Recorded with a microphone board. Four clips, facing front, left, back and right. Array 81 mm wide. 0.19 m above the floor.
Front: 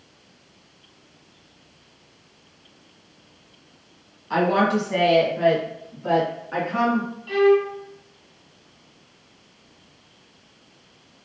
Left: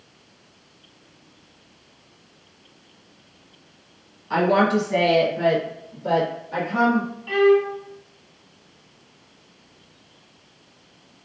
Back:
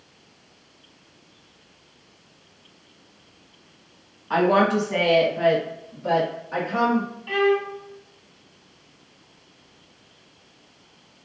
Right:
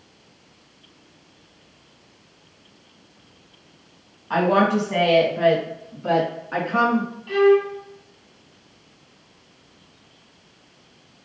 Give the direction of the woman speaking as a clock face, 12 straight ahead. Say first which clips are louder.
Even, back 1 dB; 4 o'clock.